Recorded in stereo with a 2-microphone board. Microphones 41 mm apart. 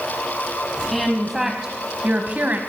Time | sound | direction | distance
0.9 | a woman speaking | 5° left (ahead or behind) | 1.8 m